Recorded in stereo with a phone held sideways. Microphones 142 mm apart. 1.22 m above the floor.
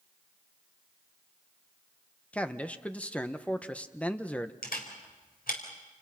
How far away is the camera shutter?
About 4.5 m.